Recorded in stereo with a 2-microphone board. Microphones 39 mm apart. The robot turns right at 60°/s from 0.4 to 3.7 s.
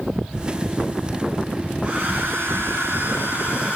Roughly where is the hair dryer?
Behind right.